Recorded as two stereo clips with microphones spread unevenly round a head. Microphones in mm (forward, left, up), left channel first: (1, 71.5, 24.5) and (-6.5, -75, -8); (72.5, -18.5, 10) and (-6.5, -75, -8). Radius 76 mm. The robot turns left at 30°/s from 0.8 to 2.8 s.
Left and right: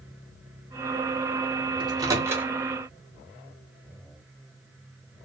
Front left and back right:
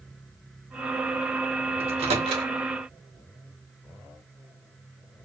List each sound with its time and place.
1.8 s a microwave: 155° right, 0.9 m; by 2.5 s straight behind, 0.9 m